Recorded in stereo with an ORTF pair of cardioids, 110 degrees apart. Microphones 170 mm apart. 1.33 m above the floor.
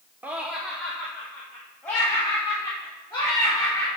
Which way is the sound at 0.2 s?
10° right.